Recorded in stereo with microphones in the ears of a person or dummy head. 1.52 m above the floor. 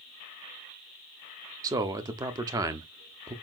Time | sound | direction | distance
1.6 | a man speaking | 20° right (ahead or behind) | 0.5 m